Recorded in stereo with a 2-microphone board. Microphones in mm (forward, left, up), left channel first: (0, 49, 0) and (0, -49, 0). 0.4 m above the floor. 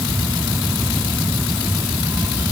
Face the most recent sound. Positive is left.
No sound to turn to.